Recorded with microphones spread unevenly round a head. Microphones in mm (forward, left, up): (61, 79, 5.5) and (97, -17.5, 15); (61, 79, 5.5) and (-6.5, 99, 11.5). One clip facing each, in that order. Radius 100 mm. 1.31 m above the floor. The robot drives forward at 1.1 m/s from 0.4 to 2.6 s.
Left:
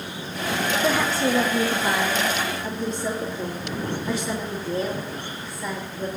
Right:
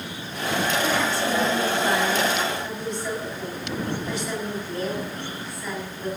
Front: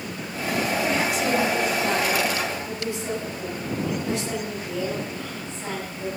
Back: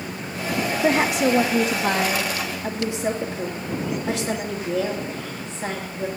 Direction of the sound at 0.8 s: Straight behind.